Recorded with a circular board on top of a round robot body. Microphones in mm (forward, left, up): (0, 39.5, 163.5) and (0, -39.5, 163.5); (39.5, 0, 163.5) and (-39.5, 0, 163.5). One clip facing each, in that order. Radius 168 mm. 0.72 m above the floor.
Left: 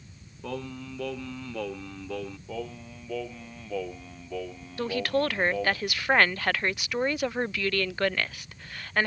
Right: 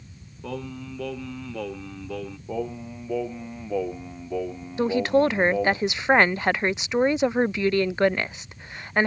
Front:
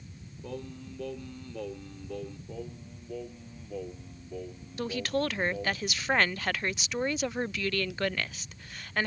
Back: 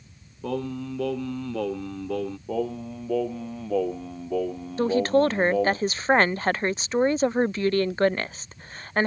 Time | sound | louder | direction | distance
0.4 | singing | right 2 dB, back 11 dB | straight behind | ?
2.5 | singing | right 6 dB, back 13 dB | 165° right | ?
4.8 | a woman speaking | right 7 dB, back 10 dB | 145° right | ?